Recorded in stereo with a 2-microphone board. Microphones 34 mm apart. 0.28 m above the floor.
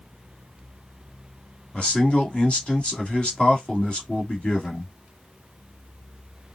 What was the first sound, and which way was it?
A man speaking, 30° left (ahead or behind).